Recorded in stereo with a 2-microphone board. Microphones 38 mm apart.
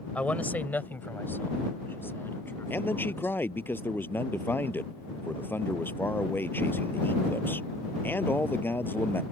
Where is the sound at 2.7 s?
65° left (ahead or behind).